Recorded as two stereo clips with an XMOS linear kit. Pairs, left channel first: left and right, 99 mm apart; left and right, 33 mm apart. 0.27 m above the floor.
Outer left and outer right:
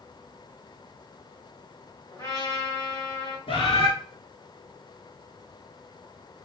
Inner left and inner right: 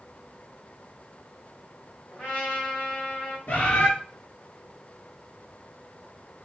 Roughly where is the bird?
Left.